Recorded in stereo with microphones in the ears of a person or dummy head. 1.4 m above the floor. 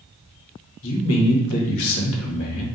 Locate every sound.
0.8 s a man speaking: 70° left (ahead or behind), 1.1 m